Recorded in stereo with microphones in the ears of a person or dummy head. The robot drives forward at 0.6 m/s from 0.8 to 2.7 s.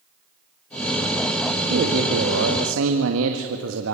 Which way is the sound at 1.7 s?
55° right (ahead or behind).